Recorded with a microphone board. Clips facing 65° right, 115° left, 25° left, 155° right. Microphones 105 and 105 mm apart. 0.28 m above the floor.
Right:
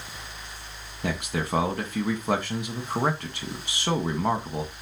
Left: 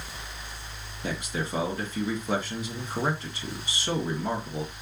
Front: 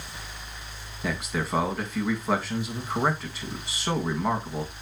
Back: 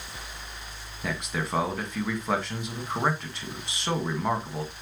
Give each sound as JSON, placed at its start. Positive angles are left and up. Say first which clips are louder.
{"t": 1.0, "sound": "a man speaking", "louder": "right 3 dB, front 2 dB", "azimuth_deg": -65, "distance_m": 2.0}